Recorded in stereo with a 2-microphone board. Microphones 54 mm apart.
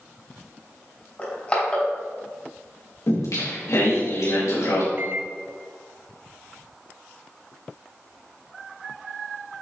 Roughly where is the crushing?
Left.